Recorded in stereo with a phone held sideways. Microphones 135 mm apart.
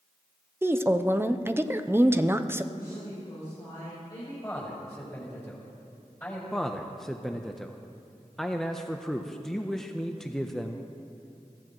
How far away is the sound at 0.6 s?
About 0.6 m.